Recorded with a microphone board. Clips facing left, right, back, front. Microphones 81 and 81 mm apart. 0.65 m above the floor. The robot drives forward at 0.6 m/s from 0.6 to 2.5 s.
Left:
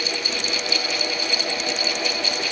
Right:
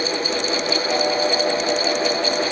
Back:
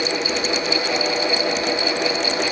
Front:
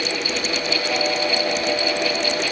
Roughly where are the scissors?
No scissors in this recording.